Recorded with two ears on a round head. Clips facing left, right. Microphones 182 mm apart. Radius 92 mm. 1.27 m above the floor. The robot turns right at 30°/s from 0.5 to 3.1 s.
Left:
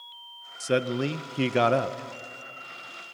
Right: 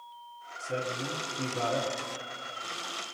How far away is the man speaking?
About 0.7 m.